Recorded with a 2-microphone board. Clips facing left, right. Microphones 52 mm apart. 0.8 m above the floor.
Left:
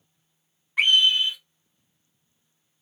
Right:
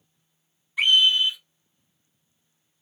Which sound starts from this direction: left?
A scream, at 0.8 s.